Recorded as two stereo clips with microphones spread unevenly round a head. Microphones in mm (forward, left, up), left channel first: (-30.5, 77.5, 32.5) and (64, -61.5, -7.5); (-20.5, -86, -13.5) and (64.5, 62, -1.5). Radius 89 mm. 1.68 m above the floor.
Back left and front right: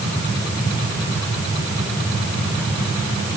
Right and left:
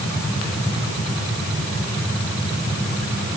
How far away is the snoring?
No snoring in this recording.